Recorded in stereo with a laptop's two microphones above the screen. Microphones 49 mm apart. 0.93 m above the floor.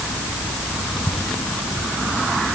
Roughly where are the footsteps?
I don't hear footsteps.